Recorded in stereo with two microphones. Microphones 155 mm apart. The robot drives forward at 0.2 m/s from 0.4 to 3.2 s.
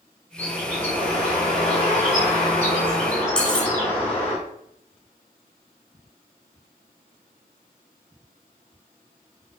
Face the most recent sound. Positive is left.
turn(degrees=5)  # may be behind; listen again after turning